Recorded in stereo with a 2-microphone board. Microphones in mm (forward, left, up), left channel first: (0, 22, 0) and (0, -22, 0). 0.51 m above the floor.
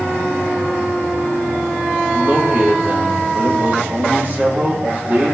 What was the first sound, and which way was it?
A man speaking, 40° right (ahead or behind).